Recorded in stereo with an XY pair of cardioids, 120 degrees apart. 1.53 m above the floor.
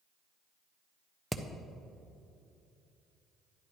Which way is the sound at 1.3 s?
5° right.